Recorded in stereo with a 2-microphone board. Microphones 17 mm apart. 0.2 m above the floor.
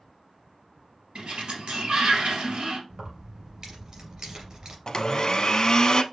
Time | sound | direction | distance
1.1 | a sliding door | 75° right (ahead or behind) | 2 m
2.9 | keys jangling | 40° right (ahead or behind) | 2.5 m
4.9 | a blender | 45° left (ahead or behind) | 0.6 m